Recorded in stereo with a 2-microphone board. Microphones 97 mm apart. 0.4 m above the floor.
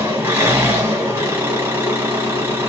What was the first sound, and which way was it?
An engine running, 30° right (ahead or behind).